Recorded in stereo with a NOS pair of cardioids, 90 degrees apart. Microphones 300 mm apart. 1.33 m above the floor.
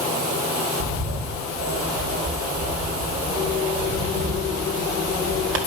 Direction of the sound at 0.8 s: 45° right.